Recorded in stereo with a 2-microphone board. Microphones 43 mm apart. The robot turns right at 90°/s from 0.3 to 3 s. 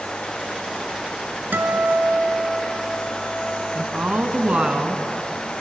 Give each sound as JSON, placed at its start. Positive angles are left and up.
{"t": 1.5, "sound": "a guitar", "azimuth_deg": -125, "distance_m": 2.0}
{"t": 3.8, "sound": "a woman speaking", "side_deg": -30, "distance_m": 1.9}